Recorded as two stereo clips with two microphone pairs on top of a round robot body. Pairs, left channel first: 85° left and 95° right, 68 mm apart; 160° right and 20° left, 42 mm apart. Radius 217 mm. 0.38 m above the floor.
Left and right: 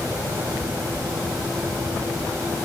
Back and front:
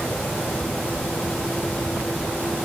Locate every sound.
Only background noise.